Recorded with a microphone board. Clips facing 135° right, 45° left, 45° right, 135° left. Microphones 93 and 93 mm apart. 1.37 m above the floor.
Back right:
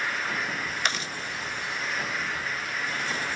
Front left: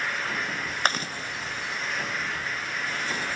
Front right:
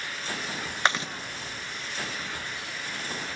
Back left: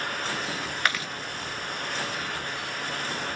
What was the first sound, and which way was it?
Chewing, 15° left.